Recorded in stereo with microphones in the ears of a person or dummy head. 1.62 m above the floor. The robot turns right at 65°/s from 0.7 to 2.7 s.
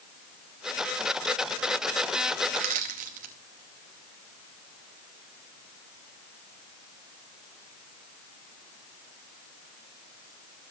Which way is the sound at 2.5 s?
30° right (ahead or behind).